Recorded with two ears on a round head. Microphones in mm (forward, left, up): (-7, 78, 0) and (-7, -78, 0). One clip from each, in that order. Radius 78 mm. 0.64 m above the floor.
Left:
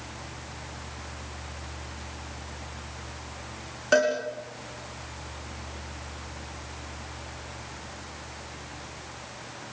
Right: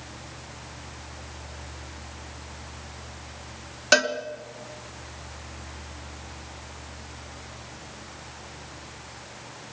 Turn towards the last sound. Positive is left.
turn(degrees=-75)  # may be behind; listen again after turning